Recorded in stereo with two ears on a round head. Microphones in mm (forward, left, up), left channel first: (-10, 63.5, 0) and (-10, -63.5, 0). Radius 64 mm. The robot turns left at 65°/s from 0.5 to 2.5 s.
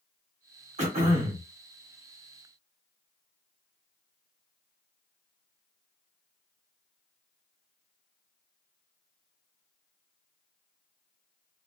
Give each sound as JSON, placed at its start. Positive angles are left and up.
{"t": 0.8, "sound": "throat clearing", "azimuth_deg": -95, "distance_m": 1.2}